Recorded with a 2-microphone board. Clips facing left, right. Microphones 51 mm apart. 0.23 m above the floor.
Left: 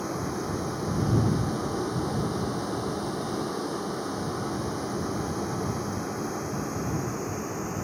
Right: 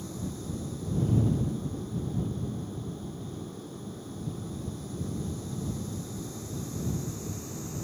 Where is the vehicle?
65° left (ahead or behind); by 7.8 s 50° left (ahead or behind).